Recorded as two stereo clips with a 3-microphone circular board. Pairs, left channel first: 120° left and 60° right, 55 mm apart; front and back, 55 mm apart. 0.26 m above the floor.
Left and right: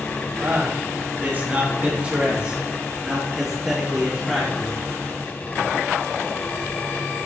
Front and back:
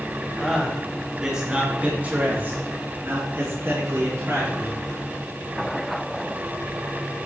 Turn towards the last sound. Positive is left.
turn(degrees=-150)